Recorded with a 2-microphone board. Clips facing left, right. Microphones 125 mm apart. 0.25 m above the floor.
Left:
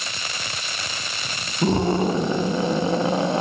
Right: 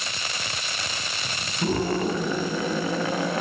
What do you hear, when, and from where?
1.6 s a scream: 25° left (ahead or behind), 1.3 m